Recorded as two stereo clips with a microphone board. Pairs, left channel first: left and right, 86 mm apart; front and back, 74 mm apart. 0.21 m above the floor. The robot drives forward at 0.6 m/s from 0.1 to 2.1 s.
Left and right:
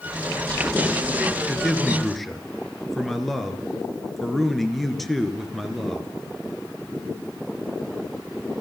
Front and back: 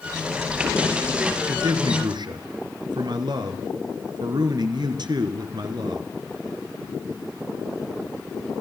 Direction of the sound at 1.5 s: Straight behind.